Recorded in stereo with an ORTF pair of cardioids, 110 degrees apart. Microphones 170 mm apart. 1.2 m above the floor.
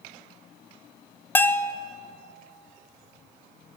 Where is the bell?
10° left, 0.9 m.